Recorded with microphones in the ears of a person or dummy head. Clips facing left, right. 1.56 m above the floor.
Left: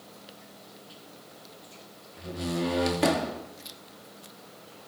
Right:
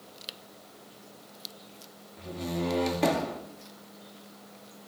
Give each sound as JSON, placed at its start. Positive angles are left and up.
{"t": 2.2, "sound": "a door slam", "side_deg": 10, "distance_m": 2.0}